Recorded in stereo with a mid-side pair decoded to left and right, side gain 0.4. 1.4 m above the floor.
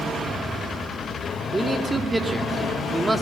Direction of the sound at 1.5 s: 25° right.